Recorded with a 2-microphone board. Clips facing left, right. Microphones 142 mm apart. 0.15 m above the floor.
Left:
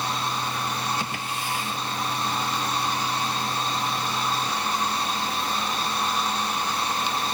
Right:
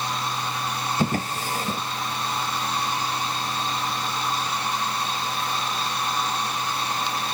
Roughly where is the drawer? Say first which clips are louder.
Right 6 dB; right.